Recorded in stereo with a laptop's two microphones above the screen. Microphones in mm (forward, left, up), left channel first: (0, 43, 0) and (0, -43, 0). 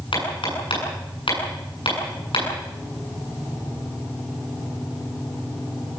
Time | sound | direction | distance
0.1 | hammering | 75° left (ahead or behind) | 8.5 m